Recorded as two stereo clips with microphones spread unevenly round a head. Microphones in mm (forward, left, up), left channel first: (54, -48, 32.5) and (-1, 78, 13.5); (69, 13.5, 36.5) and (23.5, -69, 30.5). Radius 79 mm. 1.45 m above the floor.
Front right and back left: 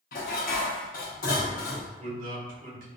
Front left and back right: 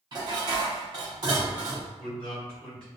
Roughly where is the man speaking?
Behind left.